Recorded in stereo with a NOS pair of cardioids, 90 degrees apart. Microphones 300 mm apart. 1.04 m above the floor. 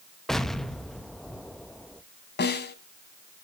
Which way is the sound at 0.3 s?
Straight ahead.